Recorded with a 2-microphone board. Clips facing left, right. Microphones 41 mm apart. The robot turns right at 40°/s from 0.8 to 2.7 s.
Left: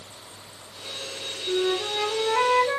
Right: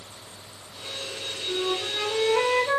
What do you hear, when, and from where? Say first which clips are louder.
1.5 s a flute: left 3 dB; 135° left, 0.8 m; by 2.8 s 175° right, 0.8 m